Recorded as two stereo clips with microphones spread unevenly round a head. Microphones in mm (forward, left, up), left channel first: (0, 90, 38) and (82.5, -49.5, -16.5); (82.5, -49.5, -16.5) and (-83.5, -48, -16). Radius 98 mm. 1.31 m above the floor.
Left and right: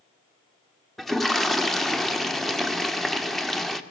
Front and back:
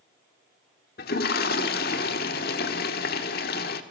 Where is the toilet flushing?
35° left, 1.9 m.